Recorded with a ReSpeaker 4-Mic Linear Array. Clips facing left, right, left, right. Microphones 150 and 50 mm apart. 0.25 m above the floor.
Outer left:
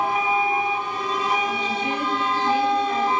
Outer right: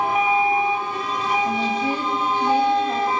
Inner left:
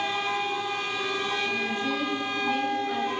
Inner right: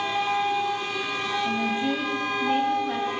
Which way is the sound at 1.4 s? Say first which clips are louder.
Outer right 3 dB, inner right 3 dB; 30° right (ahead or behind).